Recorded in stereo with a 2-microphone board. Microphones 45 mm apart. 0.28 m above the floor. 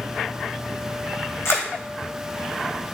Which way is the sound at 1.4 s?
85° left.